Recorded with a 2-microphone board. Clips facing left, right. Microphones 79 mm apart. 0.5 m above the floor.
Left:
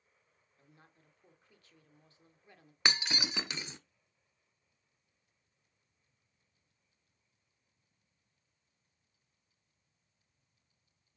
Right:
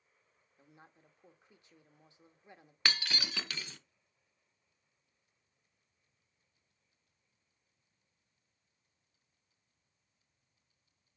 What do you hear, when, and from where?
0.6 s a woman speaking: 20° right (ahead or behind), 1.1 m
2.9 s breaking glass: 20° left (ahead or behind), 0.6 m